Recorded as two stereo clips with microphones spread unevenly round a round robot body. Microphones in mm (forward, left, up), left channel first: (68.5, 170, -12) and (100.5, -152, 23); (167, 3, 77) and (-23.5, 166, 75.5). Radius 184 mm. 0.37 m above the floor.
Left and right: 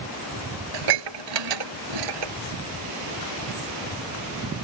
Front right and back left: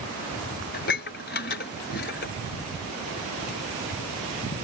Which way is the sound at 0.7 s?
100° right.